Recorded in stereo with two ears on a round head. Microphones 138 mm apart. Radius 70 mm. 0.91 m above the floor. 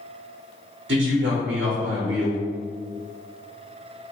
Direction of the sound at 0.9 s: 75° right (ahead or behind).